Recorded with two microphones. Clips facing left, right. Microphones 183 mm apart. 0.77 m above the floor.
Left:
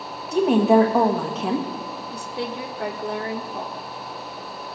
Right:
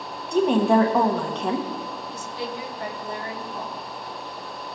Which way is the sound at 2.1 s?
60° left (ahead or behind).